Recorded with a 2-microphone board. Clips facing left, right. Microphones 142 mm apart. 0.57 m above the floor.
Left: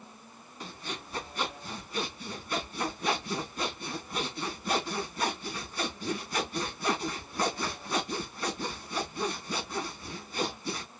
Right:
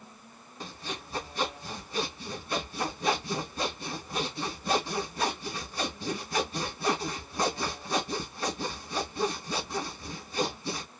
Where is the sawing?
30° right (ahead or behind), 3 m.